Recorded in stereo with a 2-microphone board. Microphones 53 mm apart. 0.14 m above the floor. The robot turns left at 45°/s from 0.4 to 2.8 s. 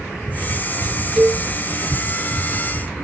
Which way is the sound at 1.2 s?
20° right (ahead or behind).